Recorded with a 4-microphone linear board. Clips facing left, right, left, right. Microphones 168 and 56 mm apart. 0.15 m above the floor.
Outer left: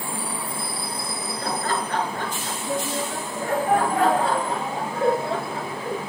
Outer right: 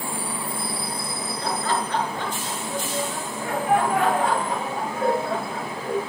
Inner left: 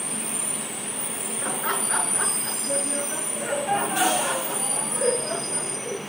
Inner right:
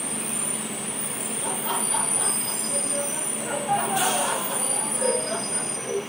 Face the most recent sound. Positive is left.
turn(degrees=25)  # may be behind; listen again after turning